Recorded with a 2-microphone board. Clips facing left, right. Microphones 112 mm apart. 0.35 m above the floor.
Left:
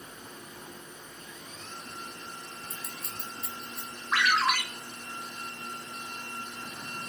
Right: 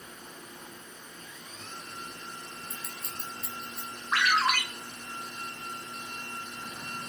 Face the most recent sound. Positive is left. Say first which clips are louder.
# even
turn(degrees=0)  # may be behind; listen again after turning